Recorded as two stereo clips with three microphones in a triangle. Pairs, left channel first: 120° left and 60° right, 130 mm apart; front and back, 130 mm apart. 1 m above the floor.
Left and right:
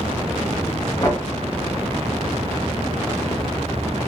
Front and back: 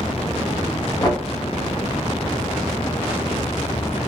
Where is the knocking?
55° left, 1.3 m.